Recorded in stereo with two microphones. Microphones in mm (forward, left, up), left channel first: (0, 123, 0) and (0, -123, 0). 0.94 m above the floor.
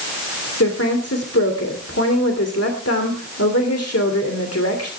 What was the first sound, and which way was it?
A woman speaking, 75° left (ahead or behind).